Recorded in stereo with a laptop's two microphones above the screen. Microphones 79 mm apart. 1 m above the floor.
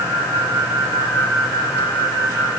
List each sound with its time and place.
Only background noise.